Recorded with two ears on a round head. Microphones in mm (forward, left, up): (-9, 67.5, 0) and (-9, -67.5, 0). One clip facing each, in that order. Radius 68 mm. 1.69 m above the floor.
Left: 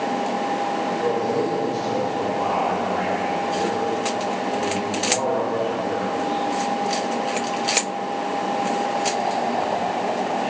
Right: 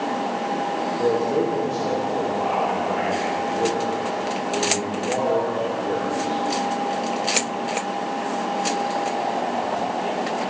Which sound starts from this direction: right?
A man speaking, at 1.0 s.